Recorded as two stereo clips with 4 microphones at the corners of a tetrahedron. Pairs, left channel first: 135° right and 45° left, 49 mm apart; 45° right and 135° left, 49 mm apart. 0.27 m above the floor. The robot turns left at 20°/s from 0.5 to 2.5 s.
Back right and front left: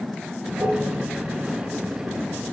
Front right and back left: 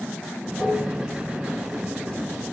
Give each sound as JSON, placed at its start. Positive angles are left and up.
{"t": 0.6, "sound": "dishes clattering", "azimuth_deg": 35, "distance_m": 4.5}